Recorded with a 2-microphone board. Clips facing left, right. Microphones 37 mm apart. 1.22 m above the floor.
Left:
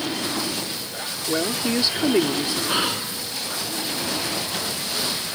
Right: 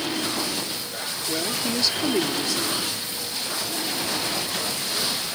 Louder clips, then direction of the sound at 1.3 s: Left 4 dB; 25° left (ahead or behind).